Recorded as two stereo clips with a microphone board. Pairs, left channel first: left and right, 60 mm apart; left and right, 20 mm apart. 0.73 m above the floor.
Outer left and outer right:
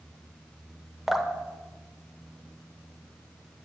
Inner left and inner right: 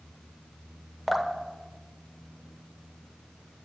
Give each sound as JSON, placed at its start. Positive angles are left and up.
{"t": 1.1, "sound": "dripping", "side_deg": -5, "distance_m": 0.9}